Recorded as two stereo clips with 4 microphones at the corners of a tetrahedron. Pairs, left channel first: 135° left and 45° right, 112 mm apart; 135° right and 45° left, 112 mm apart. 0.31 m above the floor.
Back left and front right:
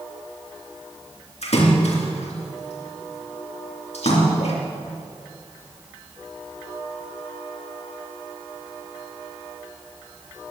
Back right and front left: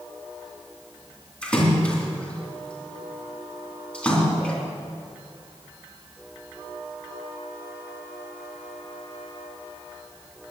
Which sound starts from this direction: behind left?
A splash, at 1.4 s.